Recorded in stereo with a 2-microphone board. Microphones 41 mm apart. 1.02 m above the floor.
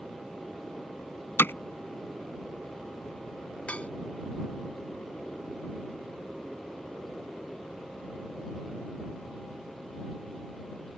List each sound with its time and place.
1.4 s hammering: 65° left (ahead or behind)
3.7 s dishes clattering: 30° left (ahead or behind)